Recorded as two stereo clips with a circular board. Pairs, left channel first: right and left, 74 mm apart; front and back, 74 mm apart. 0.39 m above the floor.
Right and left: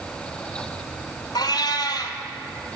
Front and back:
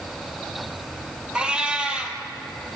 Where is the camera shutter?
I don't hear a camera shutter.